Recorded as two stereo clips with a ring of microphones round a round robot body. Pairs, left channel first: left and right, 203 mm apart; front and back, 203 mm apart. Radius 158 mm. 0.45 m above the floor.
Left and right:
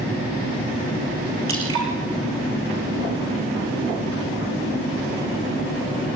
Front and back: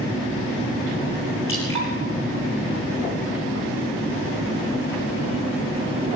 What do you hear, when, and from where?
1.5 s dripping: 80° right, 8 m